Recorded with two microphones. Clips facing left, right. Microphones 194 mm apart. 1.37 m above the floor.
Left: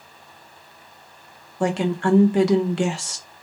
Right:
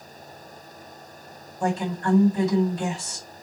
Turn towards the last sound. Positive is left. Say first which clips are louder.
# left 4 dB
turn(degrees=80)